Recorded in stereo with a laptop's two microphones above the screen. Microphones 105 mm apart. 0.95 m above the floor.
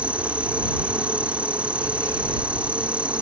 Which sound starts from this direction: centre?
An insect, at 0.0 s.